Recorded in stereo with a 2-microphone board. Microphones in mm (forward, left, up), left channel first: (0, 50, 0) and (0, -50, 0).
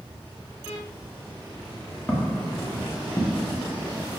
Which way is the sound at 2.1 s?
10° left (ahead or behind).